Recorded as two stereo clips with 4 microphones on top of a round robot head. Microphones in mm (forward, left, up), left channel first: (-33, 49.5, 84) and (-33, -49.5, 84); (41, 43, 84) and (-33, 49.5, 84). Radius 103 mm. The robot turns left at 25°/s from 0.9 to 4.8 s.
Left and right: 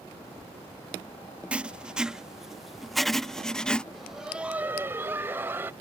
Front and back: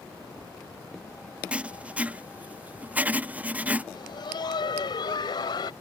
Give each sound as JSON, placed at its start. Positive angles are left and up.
{"t": 1.5, "sound": "writing", "azimuth_deg": -145}
{"t": 3.9, "sound": "laughter", "azimuth_deg": 0}